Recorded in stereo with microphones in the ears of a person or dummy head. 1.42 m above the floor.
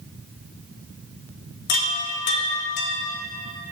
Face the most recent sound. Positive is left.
turn(degrees=55)  # may be behind; listen again after turning